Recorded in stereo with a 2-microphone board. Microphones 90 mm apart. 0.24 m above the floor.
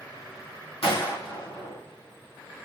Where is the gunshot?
85° left, 5 m.